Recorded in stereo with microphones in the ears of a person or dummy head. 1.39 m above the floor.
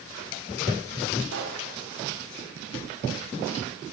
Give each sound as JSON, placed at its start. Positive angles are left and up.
{"t": 1.3, "sound": "a pop", "side_deg": -90, "distance_m": 0.9}